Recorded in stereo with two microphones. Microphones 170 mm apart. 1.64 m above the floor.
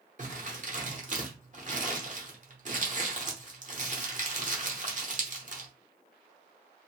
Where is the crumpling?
50° right (ahead or behind), 0.8 m.